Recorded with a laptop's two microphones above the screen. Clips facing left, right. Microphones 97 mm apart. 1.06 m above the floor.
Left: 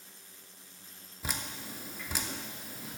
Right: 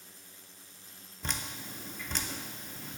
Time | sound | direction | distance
1.2 | dripping | 5° left (ahead or behind) | 0.6 m